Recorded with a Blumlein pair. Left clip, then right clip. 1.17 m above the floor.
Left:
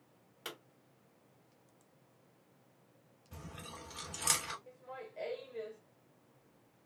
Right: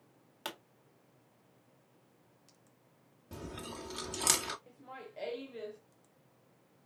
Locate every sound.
0.5 s a pop: 65° right, 1.7 m
3.3 s chewing: 55° right, 1.6 m
4.7 s laughter: 15° right, 0.9 m